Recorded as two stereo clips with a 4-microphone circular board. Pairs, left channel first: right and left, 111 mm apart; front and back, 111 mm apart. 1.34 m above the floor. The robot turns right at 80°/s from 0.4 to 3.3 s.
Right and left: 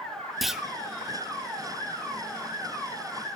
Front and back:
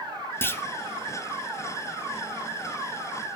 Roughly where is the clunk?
Ahead.